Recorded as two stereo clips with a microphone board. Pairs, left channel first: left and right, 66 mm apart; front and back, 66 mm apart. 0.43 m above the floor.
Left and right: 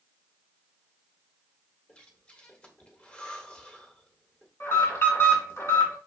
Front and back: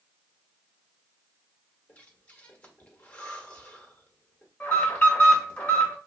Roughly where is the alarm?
Ahead left.